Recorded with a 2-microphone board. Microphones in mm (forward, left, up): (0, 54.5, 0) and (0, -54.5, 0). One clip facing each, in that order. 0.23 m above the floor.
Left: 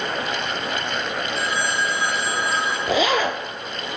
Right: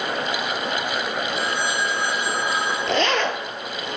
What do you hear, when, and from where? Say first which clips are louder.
1.4 s a phone ringing: left 2 dB; 45° right (ahead or behind), 8.5 m
2.9 s a zipper: left 2 dB; 5° left (ahead or behind), 1.2 m